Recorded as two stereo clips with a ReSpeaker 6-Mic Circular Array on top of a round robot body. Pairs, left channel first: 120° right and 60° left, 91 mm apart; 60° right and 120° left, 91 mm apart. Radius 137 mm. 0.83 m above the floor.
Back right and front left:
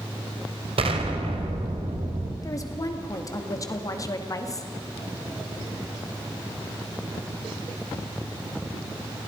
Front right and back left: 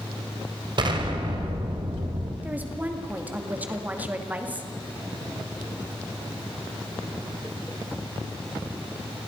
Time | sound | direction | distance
0.8 | an explosion | 80° left | 2.5 m
2.4 | a woman speaking | 170° right | 2.5 m